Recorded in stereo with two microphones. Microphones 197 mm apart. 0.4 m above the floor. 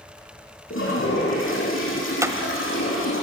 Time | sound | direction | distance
0.7 | a toilet flushing | 85° left | 7 m
2.2 | a clap | 15° right (ahead or behind) | 1.3 m